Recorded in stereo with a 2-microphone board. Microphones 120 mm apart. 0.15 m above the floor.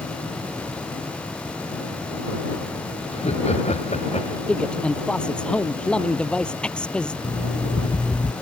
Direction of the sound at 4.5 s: 10° left (ahead or behind).